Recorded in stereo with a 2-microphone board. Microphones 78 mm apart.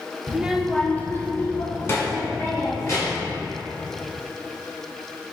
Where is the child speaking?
20° right (ahead or behind), 0.5 m; by 3.3 s 40° left (ahead or behind), 2.5 m.